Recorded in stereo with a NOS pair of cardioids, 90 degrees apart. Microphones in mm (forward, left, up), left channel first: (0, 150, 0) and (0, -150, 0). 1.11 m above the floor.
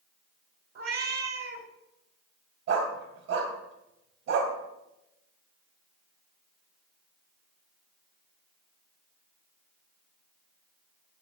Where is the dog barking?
65° right, 2.5 m.